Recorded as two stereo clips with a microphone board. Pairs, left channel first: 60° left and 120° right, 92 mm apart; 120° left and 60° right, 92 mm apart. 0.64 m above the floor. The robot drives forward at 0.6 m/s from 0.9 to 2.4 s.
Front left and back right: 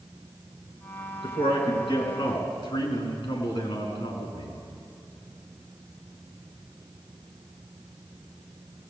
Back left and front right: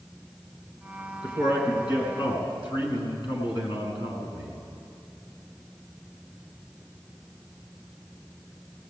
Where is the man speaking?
80° left, 7 m; by 4.6 s 85° left, 7 m.